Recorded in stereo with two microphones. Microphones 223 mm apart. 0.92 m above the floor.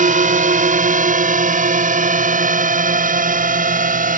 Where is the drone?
35° right (ahead or behind); by 4.2 s 40° right (ahead or behind).